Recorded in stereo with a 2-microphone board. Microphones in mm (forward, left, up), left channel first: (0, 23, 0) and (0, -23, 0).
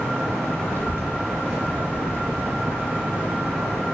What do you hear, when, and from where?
0.7 s a child speaking: 55° right (ahead or behind), 4.5 m